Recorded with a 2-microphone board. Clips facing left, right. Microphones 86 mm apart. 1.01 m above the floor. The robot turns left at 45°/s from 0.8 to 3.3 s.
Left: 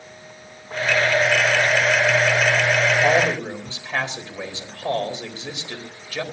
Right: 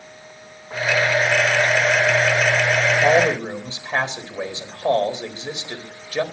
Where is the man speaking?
15° right (ahead or behind), 4 m; by 6.2 s 25° right (ahead or behind), 4 m.